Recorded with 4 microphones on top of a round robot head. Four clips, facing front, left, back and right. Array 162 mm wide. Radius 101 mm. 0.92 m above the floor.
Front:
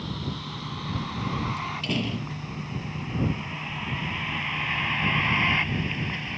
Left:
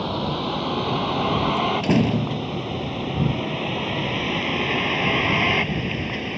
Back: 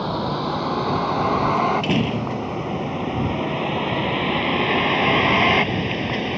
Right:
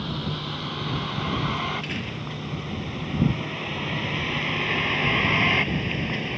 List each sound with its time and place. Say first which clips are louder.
0.0 s a vehicle: left 6 dB, back 11 dB; 145° left; by 6.4 s straight behind
1.6 s a door slam: left 10 dB, back 11 dB; 115° left